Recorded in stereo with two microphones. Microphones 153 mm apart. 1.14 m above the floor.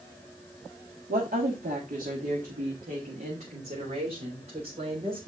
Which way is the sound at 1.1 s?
75° right (ahead or behind).